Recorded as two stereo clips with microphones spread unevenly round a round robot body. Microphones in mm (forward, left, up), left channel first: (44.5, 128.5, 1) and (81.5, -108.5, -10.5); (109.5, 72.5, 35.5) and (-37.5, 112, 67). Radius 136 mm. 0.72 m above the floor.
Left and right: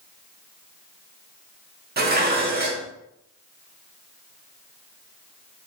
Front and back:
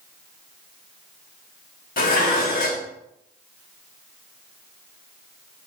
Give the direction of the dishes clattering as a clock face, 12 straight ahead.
1 o'clock.